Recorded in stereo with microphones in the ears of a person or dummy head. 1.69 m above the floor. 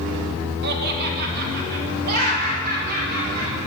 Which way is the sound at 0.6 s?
65° right (ahead or behind).